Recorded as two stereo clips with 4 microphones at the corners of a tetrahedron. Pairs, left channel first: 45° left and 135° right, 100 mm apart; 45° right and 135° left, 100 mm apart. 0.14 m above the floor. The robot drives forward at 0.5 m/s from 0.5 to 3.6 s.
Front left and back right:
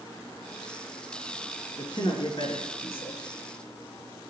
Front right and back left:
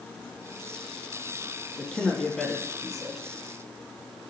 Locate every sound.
1.8 s a man speaking: 30° left, 3.5 m; by 3.2 s 40° left, 3 m